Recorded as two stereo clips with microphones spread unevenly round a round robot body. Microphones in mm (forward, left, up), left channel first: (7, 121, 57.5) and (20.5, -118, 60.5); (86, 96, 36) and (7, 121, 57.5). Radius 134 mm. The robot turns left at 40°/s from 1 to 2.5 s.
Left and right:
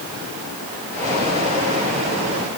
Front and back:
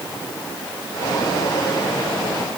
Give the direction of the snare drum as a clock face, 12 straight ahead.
I don't hear a snare drum.